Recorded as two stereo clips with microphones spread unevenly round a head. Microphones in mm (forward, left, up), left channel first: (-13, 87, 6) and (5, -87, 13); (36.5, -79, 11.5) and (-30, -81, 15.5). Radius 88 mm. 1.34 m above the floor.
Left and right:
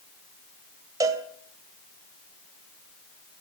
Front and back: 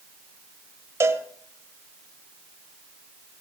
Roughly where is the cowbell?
Behind right.